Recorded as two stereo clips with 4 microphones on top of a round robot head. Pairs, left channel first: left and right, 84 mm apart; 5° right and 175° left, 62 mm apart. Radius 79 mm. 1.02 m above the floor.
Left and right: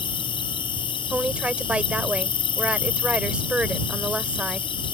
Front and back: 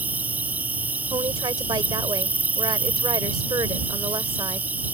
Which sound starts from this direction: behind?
A woman speaking, at 1.1 s.